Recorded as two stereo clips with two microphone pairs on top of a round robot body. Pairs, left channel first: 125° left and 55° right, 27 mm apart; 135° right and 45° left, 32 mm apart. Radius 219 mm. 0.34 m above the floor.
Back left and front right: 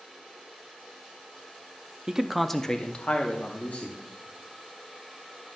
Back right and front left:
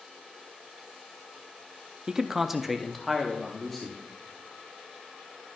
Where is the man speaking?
20° right, 0.9 m; by 4.0 s 145° left, 1.9 m.